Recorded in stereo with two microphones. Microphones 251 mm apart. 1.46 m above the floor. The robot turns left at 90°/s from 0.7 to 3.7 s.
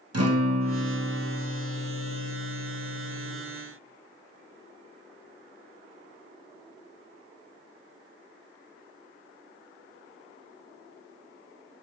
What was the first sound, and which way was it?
A guitar, 85° right.